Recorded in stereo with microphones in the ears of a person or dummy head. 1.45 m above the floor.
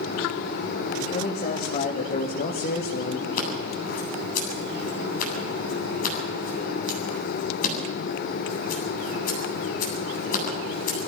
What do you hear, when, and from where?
1.0 s a man speaking: 35° left (ahead or behind), 3 m; by 3.3 s 50° left (ahead or behind), 1.8 m
3.4 s scissors: 50° left (ahead or behind), 8 m